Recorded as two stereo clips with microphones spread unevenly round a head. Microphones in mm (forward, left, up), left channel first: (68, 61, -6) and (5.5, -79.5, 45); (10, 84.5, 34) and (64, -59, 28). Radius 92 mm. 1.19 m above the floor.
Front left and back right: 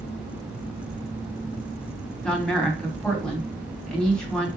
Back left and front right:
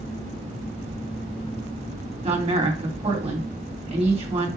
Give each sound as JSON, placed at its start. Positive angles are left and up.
{"t": 2.2, "sound": "a woman speaking", "azimuth_deg": -20, "distance_m": 3.0}